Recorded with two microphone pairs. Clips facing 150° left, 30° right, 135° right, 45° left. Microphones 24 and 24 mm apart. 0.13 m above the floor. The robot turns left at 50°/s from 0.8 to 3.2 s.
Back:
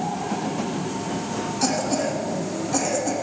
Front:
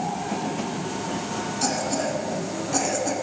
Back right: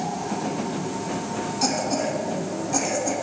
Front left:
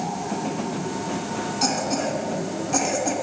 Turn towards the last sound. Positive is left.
turn(degrees=10)